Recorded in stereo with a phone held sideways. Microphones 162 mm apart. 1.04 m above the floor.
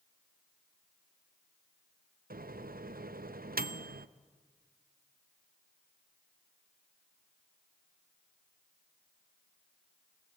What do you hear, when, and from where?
2.3 s a microwave: 60° right (ahead or behind), 0.5 m